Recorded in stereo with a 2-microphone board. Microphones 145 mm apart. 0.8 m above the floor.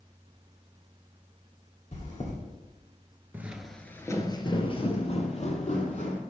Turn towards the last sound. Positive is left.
turn(degrees=55)  # may be behind; listen again after turning